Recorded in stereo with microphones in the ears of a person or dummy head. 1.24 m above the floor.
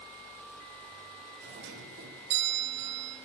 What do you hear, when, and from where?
1.4 s a doorbell: 65° right (ahead or behind), 2.5 m